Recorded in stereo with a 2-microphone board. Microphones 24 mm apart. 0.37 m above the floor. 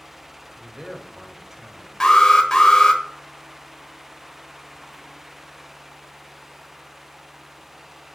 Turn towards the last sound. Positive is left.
turn(degrees=30)  # may be behind; listen again after turning